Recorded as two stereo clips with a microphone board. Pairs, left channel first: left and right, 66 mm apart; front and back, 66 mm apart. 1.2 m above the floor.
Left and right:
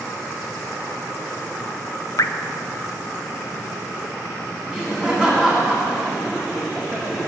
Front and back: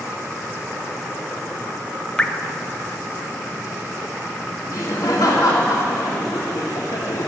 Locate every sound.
2.2 s dripping: 75° left, 0.6 m
4.7 s laughter: 10° left, 1.8 m